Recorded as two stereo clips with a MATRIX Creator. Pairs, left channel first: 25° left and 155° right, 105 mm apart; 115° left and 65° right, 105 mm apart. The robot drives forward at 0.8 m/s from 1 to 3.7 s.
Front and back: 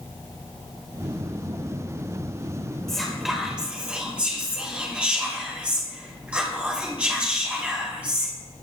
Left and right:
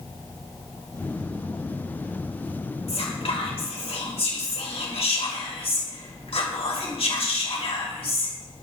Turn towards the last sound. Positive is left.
turn(degrees=125)